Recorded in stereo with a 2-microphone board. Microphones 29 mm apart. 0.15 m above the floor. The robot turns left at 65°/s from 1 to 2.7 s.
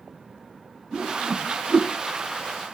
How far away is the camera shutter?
No camera shutter in this recording.